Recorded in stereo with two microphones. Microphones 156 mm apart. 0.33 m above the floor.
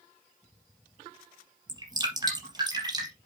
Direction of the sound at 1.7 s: 25° right (ahead or behind).